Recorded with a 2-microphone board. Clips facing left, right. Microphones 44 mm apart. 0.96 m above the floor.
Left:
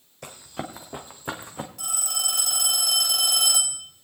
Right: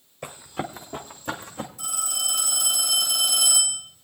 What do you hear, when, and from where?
0.2 s running footsteps: 10° right (ahead or behind), 2 m; by 1.7 s 25° left (ahead or behind), 2.5 m
1.8 s a phone ringing: 85° left, 5 m